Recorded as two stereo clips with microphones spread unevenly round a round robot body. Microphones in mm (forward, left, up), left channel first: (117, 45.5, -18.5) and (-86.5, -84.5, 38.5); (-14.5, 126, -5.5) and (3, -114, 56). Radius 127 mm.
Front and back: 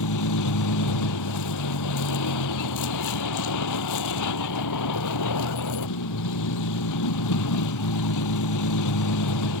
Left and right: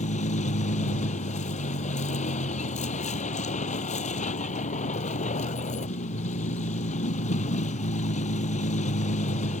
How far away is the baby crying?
No baby crying in this recording.